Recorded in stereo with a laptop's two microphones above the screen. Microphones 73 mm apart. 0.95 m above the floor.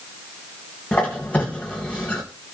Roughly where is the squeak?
Left.